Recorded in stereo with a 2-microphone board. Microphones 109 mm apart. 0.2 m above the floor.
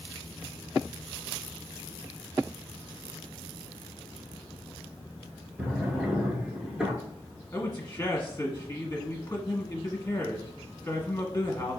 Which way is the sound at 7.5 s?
25° left (ahead or behind).